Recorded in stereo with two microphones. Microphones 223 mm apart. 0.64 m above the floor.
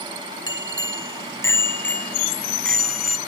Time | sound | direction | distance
0.5 | a bicycle bell | 20° left (ahead or behind) | ?